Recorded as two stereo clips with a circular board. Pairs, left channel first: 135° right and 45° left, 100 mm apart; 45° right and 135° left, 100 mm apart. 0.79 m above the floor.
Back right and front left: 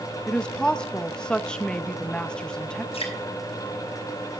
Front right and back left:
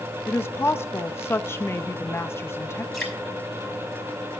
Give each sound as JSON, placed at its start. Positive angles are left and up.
{"t": 0.3, "sound": "a woman speaking", "azimuth_deg": -65, "distance_m": 0.8}
{"t": 2.9, "sound": "dripping", "azimuth_deg": -135, "distance_m": 5.5}